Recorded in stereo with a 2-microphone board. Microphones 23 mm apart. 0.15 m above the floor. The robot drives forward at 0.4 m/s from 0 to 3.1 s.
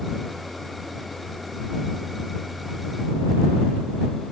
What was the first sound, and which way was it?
Only background noise.